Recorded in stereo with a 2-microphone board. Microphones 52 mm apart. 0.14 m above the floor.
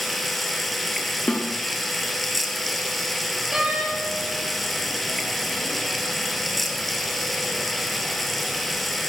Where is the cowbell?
I don't hear a cowbell.